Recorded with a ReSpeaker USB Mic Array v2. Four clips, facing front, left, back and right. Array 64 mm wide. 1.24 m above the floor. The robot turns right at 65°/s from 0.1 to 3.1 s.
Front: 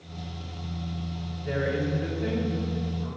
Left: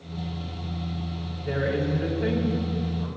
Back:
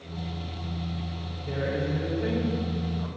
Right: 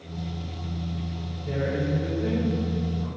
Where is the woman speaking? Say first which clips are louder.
Left 1 dB, front 2 dB; 55° left, 5.5 m; by 3.1 s 160° left, 5.5 m.